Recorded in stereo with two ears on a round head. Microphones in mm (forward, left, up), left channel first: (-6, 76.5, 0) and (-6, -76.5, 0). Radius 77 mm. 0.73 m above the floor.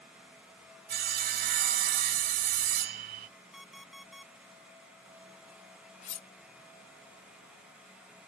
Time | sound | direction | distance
0.9 | sawing | 55° right (ahead or behind) | ?
3.5 | an alarm clock | centre (ahead or behind) | ?
6.0 | cutlery clinking | 40° left (ahead or behind) | ?